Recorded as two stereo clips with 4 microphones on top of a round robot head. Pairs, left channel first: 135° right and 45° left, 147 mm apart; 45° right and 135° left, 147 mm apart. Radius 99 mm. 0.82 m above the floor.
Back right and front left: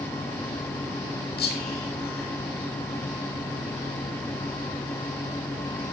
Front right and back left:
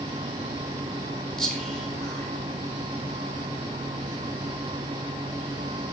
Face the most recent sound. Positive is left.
turn(degrees=-130)